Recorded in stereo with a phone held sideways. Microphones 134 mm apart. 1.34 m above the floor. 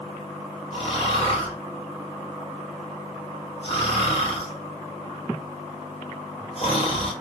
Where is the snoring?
45° left (ahead or behind), 1.0 m.